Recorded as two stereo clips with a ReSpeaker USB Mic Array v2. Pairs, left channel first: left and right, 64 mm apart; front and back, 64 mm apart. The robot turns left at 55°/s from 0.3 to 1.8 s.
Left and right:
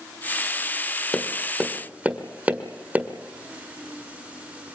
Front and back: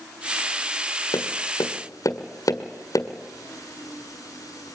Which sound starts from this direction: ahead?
Tapping, at 1.1 s.